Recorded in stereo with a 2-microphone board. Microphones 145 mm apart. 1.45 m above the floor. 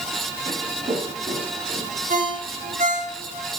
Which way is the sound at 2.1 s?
70° right (ahead or behind).